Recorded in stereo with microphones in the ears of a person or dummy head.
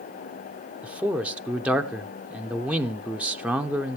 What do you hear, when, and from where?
0.8 s a man speaking: 5° right (ahead or behind), 0.5 m